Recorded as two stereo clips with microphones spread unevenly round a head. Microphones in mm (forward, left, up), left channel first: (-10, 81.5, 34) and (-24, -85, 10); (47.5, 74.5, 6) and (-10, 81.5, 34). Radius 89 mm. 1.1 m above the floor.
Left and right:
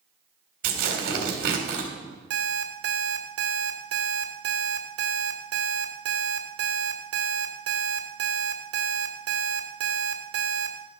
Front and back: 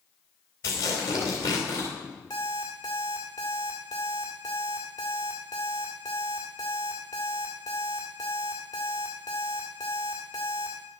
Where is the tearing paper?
55° right, 3.5 m.